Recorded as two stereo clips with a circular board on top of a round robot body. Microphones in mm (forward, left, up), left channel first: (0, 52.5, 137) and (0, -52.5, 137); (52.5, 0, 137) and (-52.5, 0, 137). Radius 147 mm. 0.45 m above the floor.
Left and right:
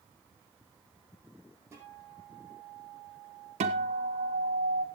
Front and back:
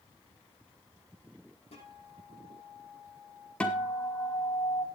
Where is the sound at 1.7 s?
25° right, 7 m.